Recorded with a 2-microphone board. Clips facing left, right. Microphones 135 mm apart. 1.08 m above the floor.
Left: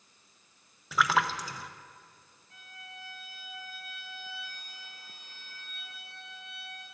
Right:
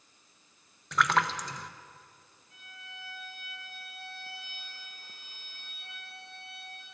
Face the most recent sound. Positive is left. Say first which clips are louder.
# left 2 dB
turn(degrees=50)  # may be behind; listen again after turning